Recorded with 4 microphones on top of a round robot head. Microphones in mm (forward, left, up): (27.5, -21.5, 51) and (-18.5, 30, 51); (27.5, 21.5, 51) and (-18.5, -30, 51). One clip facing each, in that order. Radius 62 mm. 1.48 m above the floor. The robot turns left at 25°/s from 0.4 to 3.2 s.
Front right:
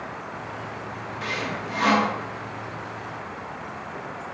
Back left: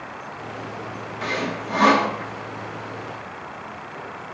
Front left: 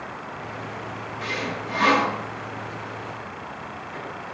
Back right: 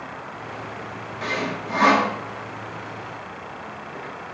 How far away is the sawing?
About 2 m.